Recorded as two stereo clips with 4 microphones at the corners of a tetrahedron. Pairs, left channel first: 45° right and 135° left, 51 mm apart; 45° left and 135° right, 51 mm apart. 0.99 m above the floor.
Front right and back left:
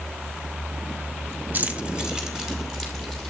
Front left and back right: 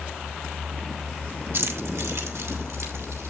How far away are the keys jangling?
About 0.8 m.